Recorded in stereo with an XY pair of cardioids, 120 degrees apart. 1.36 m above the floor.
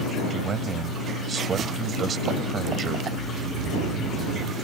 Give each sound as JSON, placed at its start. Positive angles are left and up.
{"t": 0.3, "sound": "a man speaking", "azimuth_deg": -45}
{"t": 3.1, "sound": "snoring", "azimuth_deg": -65}